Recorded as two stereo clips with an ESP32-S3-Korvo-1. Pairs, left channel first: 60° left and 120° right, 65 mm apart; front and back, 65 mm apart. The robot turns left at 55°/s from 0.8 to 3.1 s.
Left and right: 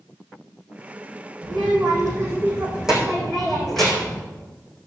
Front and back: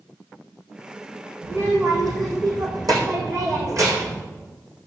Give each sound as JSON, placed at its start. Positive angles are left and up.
{"t": 1.4, "sound": "a child speaking", "azimuth_deg": -120, "distance_m": 4.0}